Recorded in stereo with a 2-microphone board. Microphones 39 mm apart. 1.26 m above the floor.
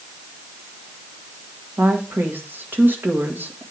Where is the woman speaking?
60° right (ahead or behind), 1.6 m.